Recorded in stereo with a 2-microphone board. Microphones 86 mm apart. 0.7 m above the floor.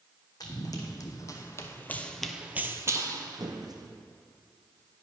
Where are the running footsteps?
55° left (ahead or behind), 1.7 m; by 3.9 s 55° right (ahead or behind), 1.5 m.